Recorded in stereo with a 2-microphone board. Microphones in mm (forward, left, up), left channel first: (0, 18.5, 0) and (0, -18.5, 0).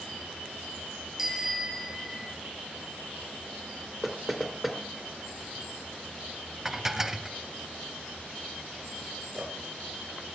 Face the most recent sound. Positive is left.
turn(degrees=-25)  # may be behind; listen again after turning